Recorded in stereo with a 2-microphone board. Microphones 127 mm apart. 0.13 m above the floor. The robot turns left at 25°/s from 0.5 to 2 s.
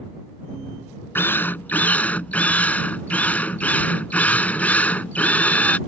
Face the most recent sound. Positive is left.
turn(degrees=10)  # may be behind; listen again after turning